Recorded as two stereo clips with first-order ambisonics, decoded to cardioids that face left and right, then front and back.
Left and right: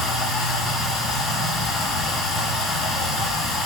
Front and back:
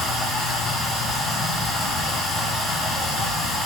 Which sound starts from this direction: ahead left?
Running water, at 0.0 s.